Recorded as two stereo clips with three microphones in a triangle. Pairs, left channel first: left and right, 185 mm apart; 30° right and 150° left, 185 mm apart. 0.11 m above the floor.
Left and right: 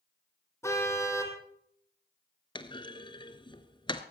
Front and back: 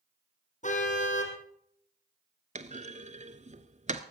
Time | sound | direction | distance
0.6 | a car horn | 15° left | 2 m
2.5 | a clunk | 135° left | 0.8 m